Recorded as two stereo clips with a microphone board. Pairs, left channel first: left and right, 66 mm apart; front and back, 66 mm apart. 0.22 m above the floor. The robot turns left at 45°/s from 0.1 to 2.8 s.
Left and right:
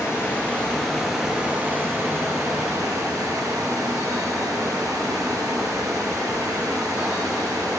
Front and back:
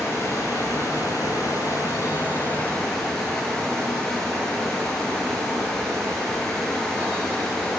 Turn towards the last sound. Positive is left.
turn(degrees=-80)